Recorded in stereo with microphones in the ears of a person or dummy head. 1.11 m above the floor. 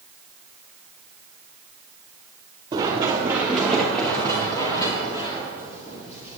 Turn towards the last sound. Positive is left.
turn(degrees=30)  # may be behind; listen again after turning